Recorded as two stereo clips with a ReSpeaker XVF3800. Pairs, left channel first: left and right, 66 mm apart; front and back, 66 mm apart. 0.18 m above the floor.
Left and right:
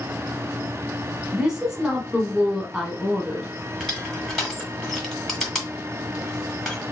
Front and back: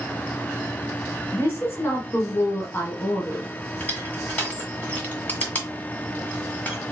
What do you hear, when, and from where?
1.3 s a woman speaking: 15° right, 1.2 m
3.8 s crushing: straight ahead, 1.7 m